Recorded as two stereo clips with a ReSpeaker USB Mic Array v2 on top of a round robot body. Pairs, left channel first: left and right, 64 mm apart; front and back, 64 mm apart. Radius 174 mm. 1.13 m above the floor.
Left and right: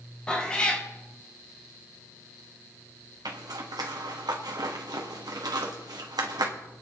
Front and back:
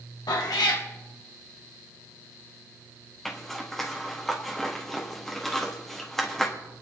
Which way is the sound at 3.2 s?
85° right.